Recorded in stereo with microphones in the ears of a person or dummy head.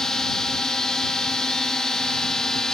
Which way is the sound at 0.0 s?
5° left (ahead or behind).